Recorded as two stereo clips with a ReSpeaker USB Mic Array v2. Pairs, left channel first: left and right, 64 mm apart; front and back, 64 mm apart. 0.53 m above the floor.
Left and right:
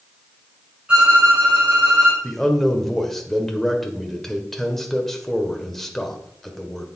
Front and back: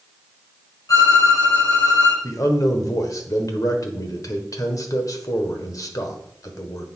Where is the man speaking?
5° left, 1.6 m.